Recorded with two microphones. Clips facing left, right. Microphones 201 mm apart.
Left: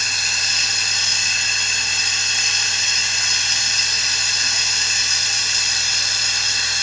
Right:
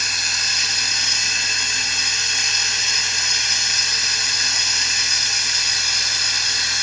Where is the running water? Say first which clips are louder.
Even; 30° left (ahead or behind), 1.3 m.